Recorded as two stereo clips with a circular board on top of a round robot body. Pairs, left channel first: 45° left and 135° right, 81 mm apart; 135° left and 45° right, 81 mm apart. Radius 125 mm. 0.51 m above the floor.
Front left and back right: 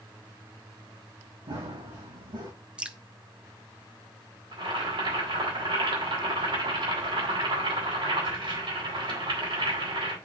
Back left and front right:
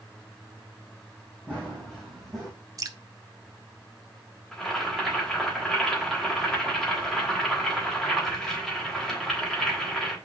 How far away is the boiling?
About 3.5 m.